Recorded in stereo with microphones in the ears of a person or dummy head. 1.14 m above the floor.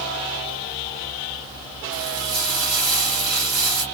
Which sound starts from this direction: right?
Frying, at 1.9 s.